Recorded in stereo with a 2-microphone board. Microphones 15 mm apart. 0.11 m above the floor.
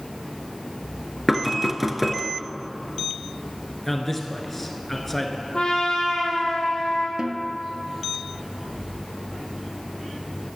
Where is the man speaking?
10° left (ahead or behind), 1.7 m.